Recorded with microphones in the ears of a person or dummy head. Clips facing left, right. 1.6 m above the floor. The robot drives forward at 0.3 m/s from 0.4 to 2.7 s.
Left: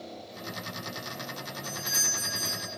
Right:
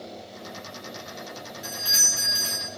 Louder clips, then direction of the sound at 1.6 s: Right 1 dB; 10° right (ahead or behind).